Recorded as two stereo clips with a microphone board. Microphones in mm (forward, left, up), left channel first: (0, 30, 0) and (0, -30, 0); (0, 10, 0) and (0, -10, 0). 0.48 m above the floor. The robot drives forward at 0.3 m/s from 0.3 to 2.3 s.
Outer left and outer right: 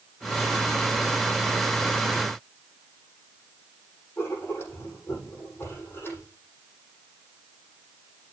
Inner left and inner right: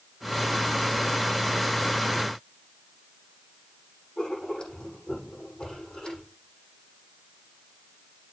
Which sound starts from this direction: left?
Writing, at 4.2 s.